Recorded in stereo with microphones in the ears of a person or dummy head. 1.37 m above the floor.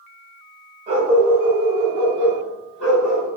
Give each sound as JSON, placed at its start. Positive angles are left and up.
{"t": 0.9, "sound": "a dog barking", "side_deg": -30, "distance_m": 2.0}